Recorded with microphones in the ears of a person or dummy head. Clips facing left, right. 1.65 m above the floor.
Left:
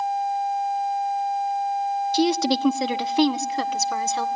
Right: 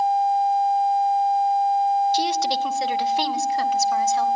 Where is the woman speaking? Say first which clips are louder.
Left 2 dB; 75° left (ahead or behind), 0.8 m; by 4.3 s 70° left (ahead or behind), 2 m.